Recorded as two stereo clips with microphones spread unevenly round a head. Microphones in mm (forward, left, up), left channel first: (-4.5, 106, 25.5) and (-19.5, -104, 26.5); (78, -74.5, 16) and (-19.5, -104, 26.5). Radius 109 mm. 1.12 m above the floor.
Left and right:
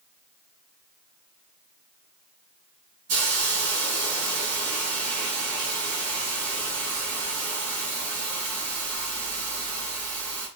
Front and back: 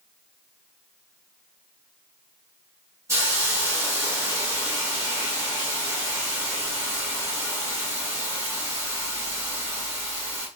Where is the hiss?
100° right, 1.6 m.